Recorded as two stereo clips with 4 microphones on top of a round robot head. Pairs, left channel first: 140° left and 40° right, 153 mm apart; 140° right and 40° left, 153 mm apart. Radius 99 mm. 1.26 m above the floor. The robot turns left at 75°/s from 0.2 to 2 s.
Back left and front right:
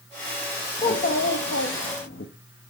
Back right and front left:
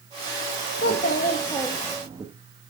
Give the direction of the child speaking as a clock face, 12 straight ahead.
5 o'clock.